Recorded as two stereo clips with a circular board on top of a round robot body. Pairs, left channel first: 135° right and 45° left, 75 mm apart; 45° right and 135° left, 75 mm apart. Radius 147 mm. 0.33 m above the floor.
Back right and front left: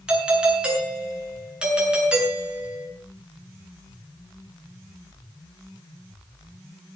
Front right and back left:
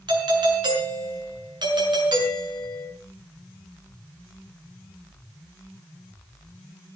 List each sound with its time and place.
0.1 s a doorbell: 120° left, 7.5 m